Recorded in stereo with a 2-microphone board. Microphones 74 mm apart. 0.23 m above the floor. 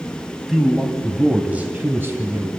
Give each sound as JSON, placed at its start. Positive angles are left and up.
{"t": 0.5, "sound": "a man speaking", "side_deg": 0, "distance_m": 1.7}